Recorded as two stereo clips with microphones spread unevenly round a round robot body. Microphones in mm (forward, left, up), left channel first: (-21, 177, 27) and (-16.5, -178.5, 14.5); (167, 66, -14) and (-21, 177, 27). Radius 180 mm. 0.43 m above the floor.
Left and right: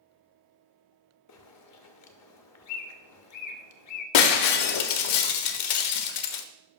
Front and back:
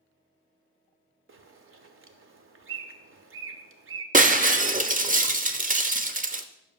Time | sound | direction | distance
1.3 | a bird | 125° left | 0.8 m
4.1 | breaking glass | 90° left | 0.7 m